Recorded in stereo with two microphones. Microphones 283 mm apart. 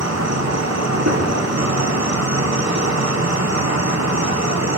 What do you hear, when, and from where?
0.0 s an insect: 70° right (ahead or behind), 0.8 m
1.1 s a gunshot: 80° right, 4.5 m